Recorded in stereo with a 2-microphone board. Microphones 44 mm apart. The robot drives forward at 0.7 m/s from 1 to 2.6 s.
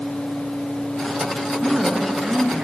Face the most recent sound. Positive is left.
turn(degrees=-20)  # may be behind; listen again after turning